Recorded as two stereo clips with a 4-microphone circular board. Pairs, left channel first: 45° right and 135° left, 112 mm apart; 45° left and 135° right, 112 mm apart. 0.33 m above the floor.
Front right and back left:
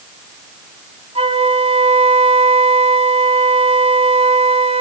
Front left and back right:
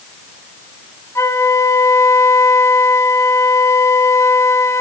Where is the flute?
110° left, 1.3 m.